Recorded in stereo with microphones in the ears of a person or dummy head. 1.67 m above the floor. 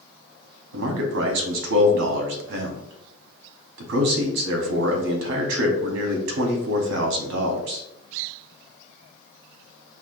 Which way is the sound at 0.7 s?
75° right (ahead or behind).